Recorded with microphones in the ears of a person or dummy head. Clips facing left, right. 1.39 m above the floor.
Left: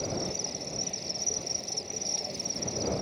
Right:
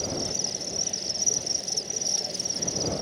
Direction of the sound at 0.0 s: 5° right (ahead or behind).